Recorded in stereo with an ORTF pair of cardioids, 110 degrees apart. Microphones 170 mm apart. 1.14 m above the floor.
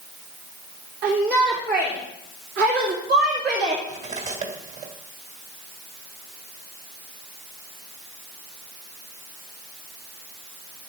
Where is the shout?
65° right, 3.5 m; by 3.8 s 75° right, 2 m.